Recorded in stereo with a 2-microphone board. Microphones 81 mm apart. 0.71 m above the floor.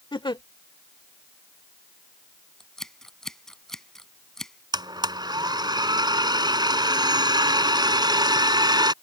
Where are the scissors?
5° left (ahead or behind).